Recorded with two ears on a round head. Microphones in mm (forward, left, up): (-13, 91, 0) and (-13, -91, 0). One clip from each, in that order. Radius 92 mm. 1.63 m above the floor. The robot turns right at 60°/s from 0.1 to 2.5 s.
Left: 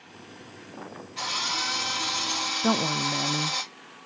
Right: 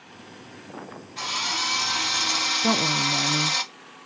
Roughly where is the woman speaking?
Centre.